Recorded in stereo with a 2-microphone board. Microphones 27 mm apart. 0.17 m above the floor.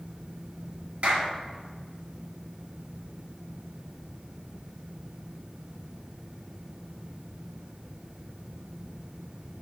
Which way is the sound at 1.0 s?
50° right (ahead or behind).